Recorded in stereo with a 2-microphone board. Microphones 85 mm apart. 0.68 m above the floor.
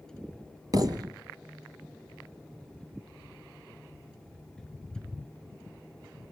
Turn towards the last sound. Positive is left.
turn(degrees=-45)  # may be behind; listen again after turning